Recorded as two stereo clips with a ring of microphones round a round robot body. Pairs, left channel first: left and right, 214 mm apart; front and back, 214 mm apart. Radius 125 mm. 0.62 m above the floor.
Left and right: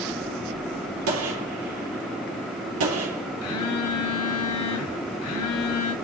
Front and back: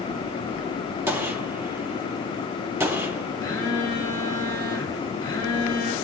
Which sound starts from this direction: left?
A phone buzzing, at 3.4 s.